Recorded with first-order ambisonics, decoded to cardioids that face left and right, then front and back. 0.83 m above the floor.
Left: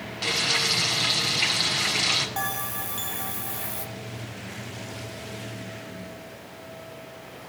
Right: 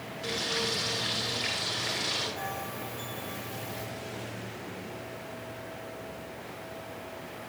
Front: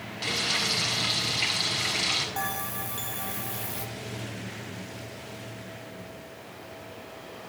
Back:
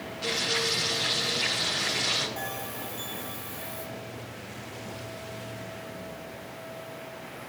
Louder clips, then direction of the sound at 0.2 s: Left 7 dB, front 1 dB; 70° left.